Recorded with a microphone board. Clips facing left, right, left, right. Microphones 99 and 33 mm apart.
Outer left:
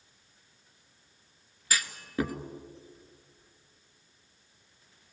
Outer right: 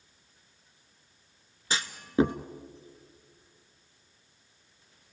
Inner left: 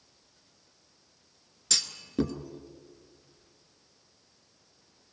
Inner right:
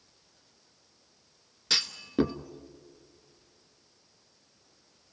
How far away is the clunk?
About 0.9 m.